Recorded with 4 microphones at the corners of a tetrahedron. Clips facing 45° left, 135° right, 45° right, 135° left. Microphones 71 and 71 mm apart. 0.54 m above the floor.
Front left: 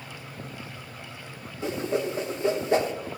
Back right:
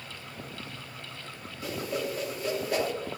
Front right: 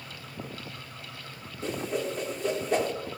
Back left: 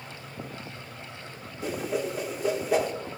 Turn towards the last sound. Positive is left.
turn(degrees=60)